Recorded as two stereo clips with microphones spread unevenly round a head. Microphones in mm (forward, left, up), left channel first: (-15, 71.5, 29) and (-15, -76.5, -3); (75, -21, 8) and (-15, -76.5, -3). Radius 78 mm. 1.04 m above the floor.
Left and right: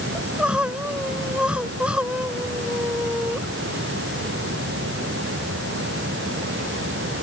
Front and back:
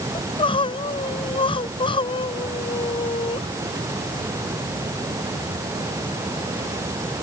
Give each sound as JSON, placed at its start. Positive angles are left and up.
{"t": 0.1, "sound": "crying", "azimuth_deg": -5}